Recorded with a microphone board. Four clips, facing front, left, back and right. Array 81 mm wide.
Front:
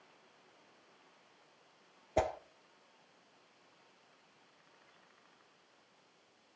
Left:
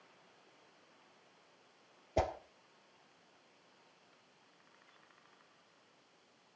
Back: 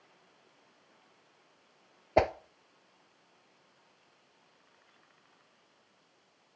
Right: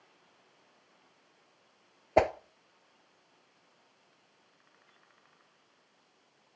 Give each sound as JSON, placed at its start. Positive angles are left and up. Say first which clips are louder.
{"t": 2.2, "sound": "a whoosh", "louder": "right 9 dB, back 7 dB", "azimuth_deg": -120, "distance_m": 0.7}